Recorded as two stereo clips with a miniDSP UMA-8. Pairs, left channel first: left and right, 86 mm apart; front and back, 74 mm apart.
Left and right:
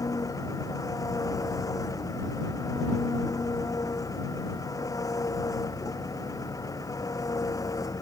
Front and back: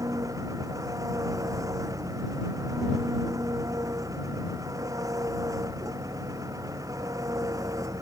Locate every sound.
0.0 s an engine running: 140° left